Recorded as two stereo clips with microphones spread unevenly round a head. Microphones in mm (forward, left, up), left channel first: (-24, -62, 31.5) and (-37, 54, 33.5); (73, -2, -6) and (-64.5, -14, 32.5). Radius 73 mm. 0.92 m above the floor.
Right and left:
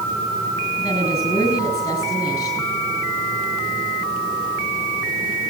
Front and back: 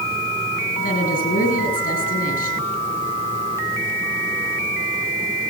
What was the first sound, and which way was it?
A woman speaking, 20° right.